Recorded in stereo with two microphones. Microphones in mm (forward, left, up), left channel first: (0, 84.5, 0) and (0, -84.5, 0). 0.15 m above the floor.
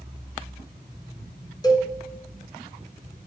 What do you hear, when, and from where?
1.6 s a cowbell: 25° left (ahead or behind), 1.4 m